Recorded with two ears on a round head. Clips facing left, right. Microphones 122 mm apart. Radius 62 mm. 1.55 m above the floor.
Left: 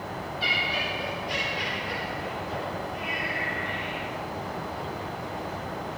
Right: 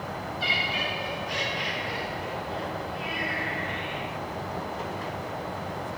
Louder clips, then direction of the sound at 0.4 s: Even; centre (ahead or behind).